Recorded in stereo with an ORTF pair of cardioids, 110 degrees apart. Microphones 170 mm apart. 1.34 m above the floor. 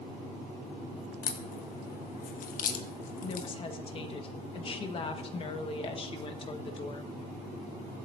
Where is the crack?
60° left, 1.2 m.